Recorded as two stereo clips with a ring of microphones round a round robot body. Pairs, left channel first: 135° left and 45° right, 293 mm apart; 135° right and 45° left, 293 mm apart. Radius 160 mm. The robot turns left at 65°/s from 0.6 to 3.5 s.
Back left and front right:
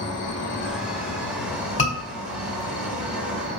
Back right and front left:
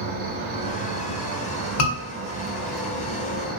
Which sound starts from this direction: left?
An insect, at 0.0 s.